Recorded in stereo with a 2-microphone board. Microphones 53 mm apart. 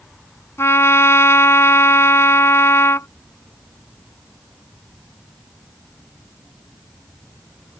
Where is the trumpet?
65° left (ahead or behind).